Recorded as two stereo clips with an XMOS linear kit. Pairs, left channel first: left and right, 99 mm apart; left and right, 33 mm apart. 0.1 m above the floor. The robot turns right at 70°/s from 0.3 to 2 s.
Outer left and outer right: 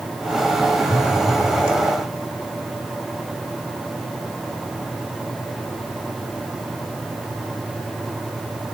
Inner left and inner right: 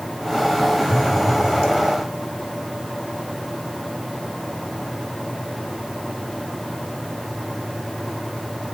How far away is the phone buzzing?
About 1.2 m.